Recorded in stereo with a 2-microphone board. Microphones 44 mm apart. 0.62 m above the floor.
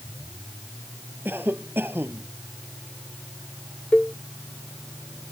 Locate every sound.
1.2 s a cough: 50° right (ahead or behind)
3.9 s a cowbell: 20° left (ahead or behind)